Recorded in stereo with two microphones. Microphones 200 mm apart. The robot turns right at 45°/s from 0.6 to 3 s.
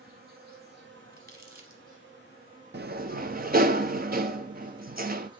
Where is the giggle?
No giggle in this recording.